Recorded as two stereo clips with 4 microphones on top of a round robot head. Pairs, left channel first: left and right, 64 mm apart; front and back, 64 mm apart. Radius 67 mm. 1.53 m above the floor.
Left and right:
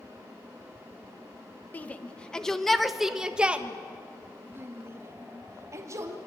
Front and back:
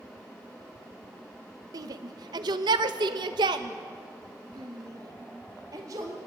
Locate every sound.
1.7 s a shout: 155° left, 1.5 m; by 6.2 s 130° right, 2.5 m